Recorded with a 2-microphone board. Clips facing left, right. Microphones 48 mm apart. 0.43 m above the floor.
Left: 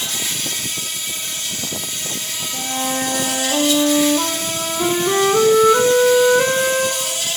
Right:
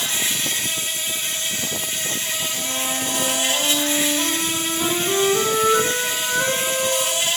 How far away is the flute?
About 3 m.